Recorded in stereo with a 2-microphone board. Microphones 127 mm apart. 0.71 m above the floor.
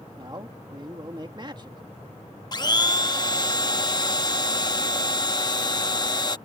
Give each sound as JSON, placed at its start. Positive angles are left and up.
{"t": 0.2, "sound": "a man speaking", "side_deg": -35}
{"t": 2.5, "sound": "a blender", "side_deg": 35}